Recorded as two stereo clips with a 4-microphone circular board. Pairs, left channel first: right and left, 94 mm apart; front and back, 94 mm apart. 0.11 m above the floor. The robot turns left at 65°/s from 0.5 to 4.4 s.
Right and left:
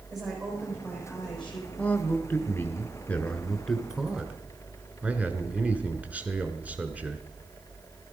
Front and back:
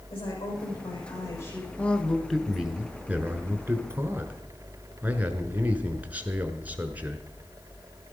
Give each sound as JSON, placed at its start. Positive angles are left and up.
{"t": 0.1, "sound": "a woman speaking", "azimuth_deg": 0, "distance_m": 6.0}
{"t": 1.8, "sound": "a man speaking", "azimuth_deg": -50, "distance_m": 1.1}